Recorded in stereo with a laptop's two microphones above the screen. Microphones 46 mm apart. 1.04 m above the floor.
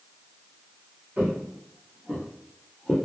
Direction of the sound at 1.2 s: 40° right (ahead or behind).